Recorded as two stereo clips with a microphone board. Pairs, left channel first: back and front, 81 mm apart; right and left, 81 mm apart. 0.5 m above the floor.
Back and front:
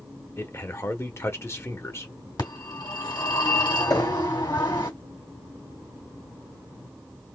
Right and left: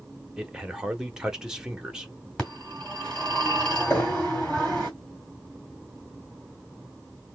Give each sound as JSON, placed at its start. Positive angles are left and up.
{"t": 0.4, "sound": "a man speaking", "azimuth_deg": 165, "distance_m": 1.2}
{"t": 2.4, "sound": "a phone ringing", "azimuth_deg": -170, "distance_m": 2.5}
{"t": 3.9, "sound": "knocking", "azimuth_deg": -145, "distance_m": 1.8}